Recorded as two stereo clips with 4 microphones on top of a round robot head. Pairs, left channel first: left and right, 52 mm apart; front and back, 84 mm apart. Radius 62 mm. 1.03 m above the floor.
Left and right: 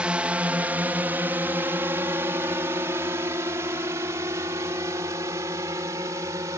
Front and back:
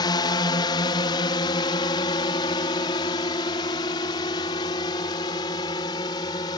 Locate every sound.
0.0 s a drone: 20° right; by 6.6 s 50° right